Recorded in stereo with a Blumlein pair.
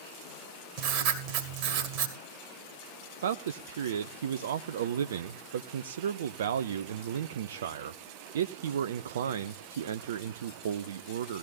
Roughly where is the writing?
Ahead right.